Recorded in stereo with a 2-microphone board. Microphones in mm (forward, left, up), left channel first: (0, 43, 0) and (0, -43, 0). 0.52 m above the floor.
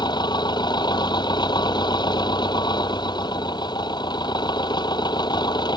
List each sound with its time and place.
0.0 s an engine running: 55° left (ahead or behind)